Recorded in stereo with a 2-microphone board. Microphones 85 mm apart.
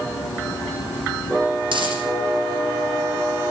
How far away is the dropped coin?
About 8 m.